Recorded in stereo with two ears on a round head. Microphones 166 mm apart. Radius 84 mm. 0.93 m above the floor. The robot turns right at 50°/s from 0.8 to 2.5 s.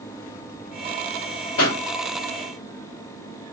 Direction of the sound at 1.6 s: 75° left (ahead or behind).